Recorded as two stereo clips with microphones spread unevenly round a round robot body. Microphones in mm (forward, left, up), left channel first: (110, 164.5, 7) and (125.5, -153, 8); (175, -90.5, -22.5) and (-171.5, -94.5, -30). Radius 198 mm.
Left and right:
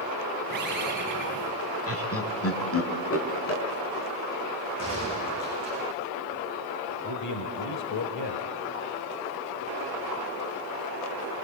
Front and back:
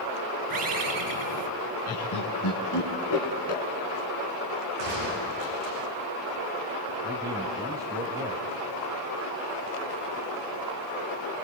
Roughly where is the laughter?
Ahead left.